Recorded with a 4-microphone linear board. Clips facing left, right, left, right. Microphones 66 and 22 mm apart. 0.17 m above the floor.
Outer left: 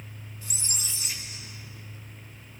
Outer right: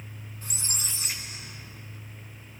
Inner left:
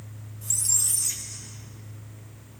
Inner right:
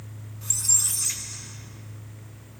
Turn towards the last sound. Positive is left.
turn(degrees=-45)  # may be behind; listen again after turning